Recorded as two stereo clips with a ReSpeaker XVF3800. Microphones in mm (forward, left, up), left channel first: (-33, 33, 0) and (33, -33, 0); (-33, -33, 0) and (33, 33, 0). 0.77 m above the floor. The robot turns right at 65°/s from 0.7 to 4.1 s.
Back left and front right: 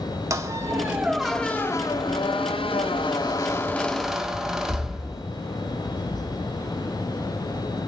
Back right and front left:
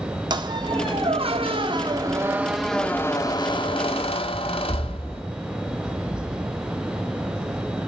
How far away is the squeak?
About 1.0 m.